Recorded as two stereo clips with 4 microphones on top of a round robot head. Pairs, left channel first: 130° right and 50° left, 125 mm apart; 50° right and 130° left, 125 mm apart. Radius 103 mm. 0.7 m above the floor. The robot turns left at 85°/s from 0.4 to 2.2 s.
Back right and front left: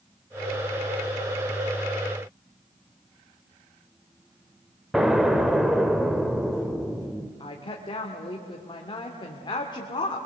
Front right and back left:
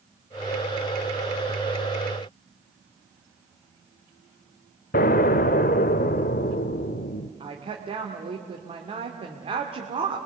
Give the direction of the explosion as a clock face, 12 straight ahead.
1 o'clock.